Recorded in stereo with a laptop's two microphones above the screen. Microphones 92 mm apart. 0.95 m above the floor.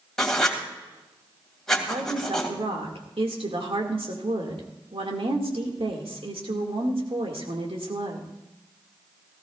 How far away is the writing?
About 2.5 m.